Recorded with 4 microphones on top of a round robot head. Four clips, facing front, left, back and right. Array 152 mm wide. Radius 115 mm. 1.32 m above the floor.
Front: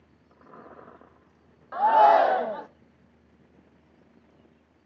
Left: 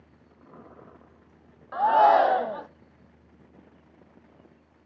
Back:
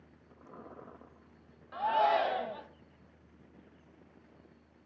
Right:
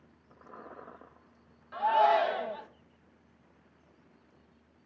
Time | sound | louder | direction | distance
1.7 | a shout | left 6 dB, front 11 dB | 45° left | 0.8 m